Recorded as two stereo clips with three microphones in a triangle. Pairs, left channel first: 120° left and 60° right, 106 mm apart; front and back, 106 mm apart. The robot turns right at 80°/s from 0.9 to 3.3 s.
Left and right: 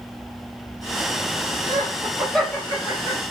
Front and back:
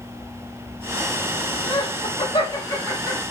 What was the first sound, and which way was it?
Laughter, 15° right.